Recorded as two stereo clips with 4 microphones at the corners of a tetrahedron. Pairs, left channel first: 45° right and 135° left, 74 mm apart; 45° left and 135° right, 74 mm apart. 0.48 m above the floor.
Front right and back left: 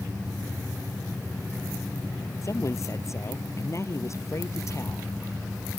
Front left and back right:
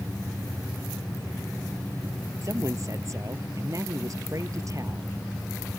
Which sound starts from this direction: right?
A woman speaking, at 2.4 s.